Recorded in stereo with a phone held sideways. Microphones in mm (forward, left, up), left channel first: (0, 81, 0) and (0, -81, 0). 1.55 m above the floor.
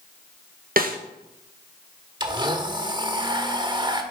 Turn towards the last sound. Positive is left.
turn(degrees=-30)  # may be behind; listen again after turning